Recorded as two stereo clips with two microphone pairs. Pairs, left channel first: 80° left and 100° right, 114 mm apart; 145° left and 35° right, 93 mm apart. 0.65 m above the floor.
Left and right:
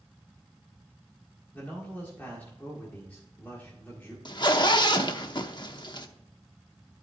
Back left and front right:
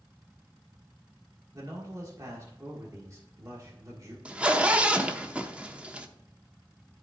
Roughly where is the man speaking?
Ahead.